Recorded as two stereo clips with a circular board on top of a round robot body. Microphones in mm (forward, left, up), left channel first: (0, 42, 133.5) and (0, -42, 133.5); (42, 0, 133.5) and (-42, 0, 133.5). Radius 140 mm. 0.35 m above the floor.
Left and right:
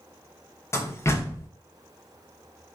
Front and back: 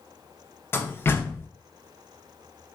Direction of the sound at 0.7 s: 50° left.